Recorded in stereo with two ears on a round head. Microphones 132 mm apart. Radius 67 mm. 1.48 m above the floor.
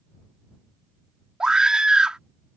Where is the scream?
5° right (ahead or behind).